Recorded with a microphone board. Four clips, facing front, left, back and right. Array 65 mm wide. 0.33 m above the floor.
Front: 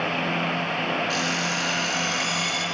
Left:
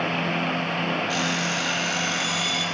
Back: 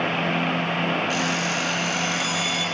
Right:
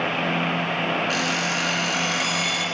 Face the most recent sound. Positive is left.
turn(degrees=-95)